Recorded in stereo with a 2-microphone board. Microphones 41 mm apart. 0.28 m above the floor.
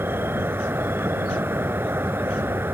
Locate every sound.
0.0 s an insect: 75° right (ahead or behind)